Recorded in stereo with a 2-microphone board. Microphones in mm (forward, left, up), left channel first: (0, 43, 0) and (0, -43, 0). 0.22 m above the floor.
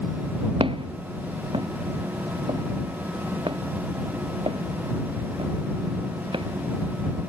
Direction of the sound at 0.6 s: 80° right.